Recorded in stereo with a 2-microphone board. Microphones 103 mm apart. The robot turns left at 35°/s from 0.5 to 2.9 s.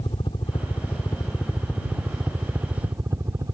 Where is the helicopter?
55° left; by 3.5 s 30° right.